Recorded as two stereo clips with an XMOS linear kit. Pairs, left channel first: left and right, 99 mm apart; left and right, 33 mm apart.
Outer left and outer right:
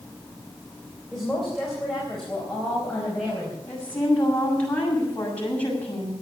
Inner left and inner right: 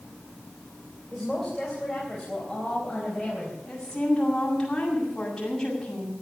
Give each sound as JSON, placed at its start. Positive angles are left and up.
{"t": 1.1, "sound": "a woman speaking", "side_deg": 0, "distance_m": 3.5}
{"t": 3.7, "sound": "a woman speaking", "side_deg": 15, "distance_m": 7.0}